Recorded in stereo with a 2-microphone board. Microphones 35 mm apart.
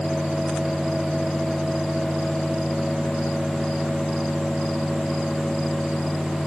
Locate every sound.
Only background noise.